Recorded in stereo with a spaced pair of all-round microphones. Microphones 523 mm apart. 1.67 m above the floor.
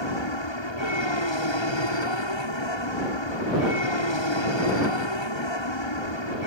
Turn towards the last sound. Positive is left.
turn(degrees=55)  # may be behind; listen again after turning